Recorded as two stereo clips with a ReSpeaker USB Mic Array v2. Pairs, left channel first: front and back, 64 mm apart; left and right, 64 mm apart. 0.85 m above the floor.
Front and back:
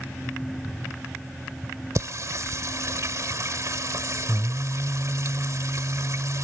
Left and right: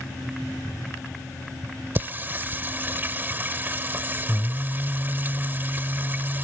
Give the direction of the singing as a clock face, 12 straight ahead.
5 o'clock.